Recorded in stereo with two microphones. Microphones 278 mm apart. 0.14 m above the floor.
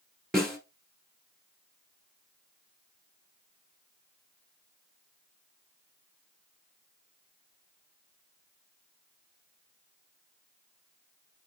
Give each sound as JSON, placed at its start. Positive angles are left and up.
{"t": 0.3, "sound": "a snare drum", "side_deg": 0, "distance_m": 1.4}